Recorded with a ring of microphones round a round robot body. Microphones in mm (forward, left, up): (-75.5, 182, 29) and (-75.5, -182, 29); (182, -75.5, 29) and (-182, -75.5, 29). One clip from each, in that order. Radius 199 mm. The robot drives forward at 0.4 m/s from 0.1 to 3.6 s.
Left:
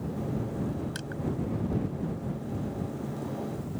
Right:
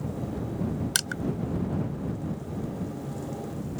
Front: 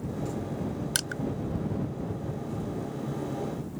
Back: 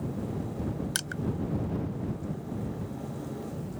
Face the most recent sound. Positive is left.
turn(degrees=-105)